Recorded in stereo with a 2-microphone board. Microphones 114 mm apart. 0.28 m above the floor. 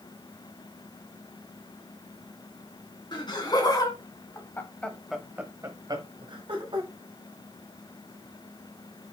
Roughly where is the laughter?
Left.